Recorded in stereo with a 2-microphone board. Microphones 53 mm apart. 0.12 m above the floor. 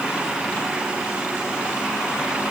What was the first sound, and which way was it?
Only background noise.